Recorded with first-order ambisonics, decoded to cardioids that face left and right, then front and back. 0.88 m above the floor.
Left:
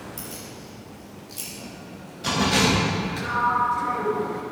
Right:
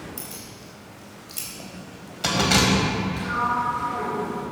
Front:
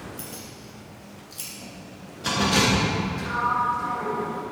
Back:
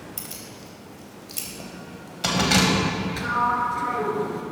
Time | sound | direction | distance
0.2 | keys jangling | 170° right | 3.5 m
3.2 | a sliding door | 165° left | 2.5 m